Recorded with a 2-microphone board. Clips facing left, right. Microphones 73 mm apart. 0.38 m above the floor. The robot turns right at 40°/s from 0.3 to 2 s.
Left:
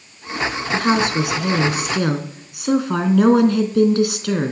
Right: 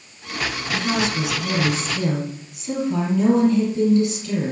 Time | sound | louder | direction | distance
0.7 | a woman speaking | left 5 dB | 50° left | 3.5 m